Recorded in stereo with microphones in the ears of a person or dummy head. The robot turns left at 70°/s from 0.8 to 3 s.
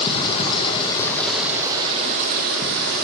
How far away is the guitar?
I don't hear a guitar.